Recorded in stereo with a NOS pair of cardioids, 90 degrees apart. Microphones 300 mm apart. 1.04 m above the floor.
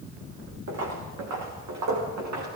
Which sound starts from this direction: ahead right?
Footsteps, at 0.7 s.